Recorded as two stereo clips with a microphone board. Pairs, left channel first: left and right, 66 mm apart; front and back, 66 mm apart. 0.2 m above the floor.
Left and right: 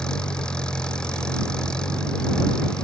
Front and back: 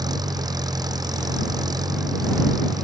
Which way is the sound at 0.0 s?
170° left.